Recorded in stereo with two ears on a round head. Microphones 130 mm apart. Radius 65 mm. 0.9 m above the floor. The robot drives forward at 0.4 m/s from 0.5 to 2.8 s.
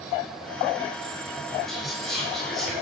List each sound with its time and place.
1.7 s whispering: centre (ahead or behind), 4.5 m; by 2.7 s 5° left (ahead or behind), 4 m